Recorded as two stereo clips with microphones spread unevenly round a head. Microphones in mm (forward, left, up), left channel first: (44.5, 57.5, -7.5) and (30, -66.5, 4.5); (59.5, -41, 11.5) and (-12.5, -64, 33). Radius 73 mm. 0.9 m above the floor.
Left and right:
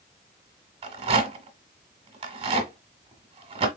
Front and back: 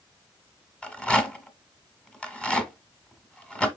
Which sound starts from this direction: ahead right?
A rattle, at 0.8 s.